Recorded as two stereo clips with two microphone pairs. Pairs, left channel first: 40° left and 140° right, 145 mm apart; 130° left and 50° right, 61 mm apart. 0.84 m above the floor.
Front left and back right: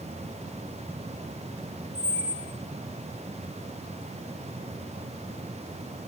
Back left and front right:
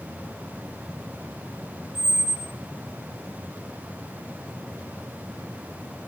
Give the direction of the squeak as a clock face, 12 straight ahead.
3 o'clock.